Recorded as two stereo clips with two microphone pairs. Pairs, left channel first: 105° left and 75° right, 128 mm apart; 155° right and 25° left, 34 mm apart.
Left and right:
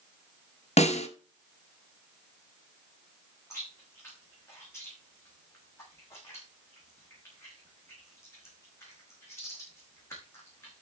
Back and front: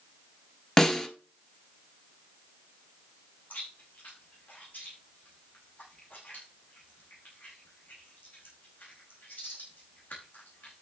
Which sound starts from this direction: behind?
Chewing, at 3.5 s.